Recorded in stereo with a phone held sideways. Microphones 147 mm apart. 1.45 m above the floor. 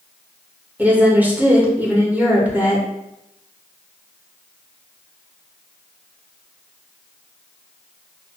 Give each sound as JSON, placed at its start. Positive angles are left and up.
{"t": 0.8, "sound": "a woman speaking", "side_deg": -10, "distance_m": 1.2}